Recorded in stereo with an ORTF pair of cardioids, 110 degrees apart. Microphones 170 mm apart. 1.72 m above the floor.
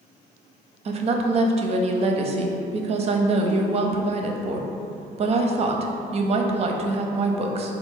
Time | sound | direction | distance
0.8 | a woman speaking | 40° right | 0.5 m